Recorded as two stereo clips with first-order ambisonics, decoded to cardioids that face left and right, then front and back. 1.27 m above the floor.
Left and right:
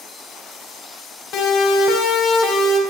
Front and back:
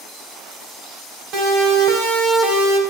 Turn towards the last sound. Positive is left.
turn(degrees=145)